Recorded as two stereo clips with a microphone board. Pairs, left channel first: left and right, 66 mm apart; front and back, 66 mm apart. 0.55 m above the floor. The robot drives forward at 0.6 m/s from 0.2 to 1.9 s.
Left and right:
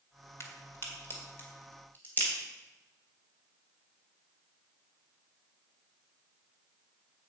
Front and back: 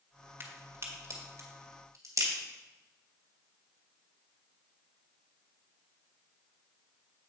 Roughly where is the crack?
Behind left.